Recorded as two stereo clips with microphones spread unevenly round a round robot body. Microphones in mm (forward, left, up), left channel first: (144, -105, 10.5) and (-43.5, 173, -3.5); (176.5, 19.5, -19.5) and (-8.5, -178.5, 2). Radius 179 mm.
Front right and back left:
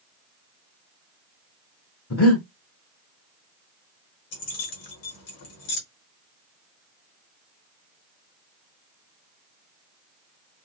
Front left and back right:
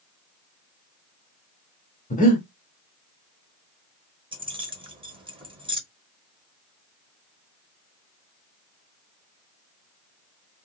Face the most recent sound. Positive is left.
turn(degrees=-60)